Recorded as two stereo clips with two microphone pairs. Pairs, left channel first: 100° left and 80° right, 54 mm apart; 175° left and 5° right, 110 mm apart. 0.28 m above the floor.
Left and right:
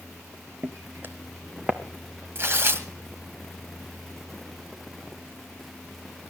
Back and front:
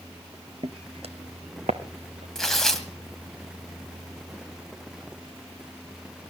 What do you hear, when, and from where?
0.6 s footsteps: 45° right, 1.1 m; by 2.2 s 5° right, 1.8 m
2.4 s tearing paper: 100° right, 1.9 m